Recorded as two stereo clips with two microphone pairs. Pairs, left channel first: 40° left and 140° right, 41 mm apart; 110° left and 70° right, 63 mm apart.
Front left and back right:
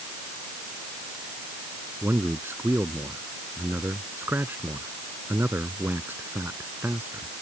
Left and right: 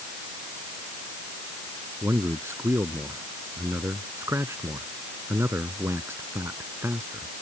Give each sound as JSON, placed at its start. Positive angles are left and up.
{"t": 2.0, "sound": "a man speaking", "azimuth_deg": -115}